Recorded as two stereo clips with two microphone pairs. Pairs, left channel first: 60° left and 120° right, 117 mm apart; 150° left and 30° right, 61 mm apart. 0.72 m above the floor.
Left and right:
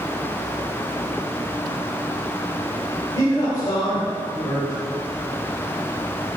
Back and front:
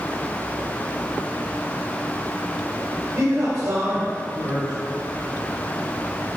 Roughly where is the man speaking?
Ahead.